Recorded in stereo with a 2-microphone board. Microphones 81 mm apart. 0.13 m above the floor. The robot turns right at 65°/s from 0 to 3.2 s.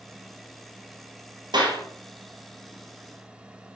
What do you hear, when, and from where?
1.5 s a clap: 65° right (ahead or behind), 2.5 m; by 1.8 s 70° right (ahead or behind), 2.5 m